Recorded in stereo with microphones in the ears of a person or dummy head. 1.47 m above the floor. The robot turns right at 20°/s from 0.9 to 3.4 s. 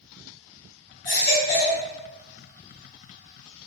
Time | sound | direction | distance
1.1 | a baby crying | 50° left (ahead or behind) | 2.0 m